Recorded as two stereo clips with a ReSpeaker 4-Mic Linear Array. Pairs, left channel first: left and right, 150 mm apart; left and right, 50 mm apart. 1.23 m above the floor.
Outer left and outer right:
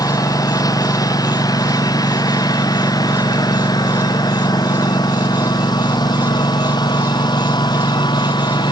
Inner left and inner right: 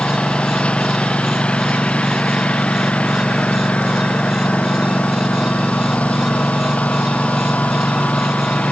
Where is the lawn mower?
25° left (ahead or behind); by 8.7 s 30° left (ahead or behind).